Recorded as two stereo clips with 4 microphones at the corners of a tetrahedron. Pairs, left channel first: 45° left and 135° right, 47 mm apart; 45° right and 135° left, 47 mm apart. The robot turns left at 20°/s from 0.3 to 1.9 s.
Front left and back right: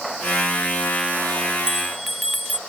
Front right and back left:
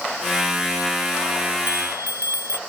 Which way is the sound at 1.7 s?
145° left.